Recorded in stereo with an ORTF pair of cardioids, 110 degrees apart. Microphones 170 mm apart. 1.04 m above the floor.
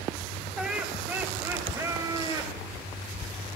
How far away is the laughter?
About 5 m.